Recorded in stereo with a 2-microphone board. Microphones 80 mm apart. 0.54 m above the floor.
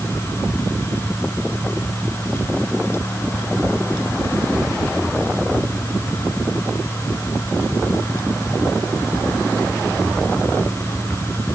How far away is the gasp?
I don't hear a gasp.